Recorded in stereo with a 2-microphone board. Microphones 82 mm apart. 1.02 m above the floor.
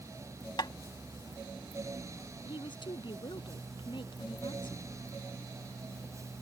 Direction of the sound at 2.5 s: 75° left (ahead or behind).